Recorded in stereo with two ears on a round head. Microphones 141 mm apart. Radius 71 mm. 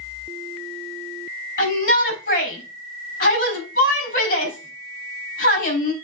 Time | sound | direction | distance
1.6 | a shout | 55° left (ahead or behind) | 3.5 m